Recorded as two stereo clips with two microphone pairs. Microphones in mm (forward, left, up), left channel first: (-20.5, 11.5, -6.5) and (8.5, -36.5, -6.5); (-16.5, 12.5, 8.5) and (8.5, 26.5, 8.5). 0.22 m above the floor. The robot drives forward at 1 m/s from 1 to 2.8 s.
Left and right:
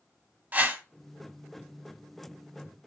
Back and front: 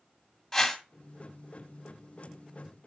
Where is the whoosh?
75° right, 1.4 m.